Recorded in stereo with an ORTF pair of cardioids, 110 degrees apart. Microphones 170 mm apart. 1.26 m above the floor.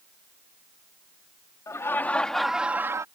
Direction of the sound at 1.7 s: 20° left.